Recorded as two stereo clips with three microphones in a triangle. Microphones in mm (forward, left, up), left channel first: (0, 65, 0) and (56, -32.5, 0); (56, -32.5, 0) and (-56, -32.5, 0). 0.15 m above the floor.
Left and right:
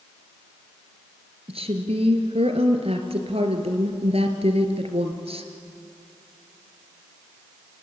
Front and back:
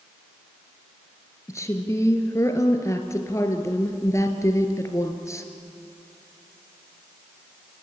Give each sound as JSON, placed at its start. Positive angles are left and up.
{"t": 1.5, "sound": "a woman speaking", "azimuth_deg": -60, "distance_m": 2.0}